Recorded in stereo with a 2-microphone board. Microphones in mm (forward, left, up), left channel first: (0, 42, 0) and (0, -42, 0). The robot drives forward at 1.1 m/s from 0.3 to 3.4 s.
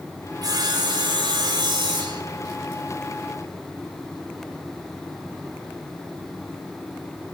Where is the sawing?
50° right (ahead or behind), 2.5 m; by 2.2 s 55° right (ahead or behind), 2.5 m.